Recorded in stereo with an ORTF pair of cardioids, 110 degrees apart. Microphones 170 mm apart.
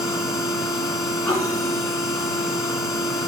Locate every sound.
0.0 s a machine running: 20° left, 2 m